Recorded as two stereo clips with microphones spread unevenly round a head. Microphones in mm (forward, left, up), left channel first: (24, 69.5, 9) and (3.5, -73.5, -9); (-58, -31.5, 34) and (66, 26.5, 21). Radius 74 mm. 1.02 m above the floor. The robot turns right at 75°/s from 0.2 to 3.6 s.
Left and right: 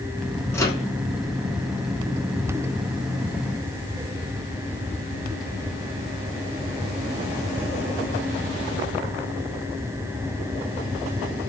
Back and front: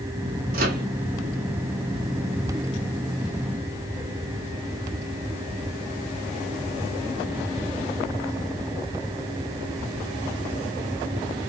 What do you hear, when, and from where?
0.5 s a microwave: 5° left, 1.5 m; by 0.8 s 30° left, 1.5 m